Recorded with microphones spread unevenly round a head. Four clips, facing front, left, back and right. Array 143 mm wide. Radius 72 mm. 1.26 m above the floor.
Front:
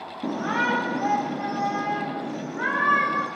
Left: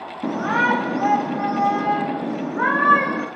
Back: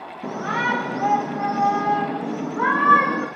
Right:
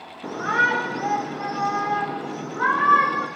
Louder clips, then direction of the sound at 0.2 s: Left 2 dB, back 1 dB; 75° left.